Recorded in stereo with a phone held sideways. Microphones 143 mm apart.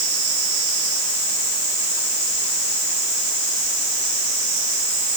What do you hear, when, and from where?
Only background noise.